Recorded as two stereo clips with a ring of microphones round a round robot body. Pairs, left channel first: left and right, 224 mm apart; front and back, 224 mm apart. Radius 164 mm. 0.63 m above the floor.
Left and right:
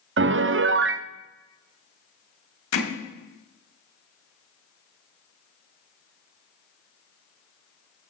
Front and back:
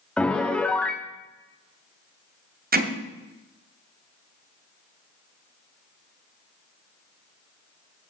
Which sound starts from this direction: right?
A piano, at 0.2 s.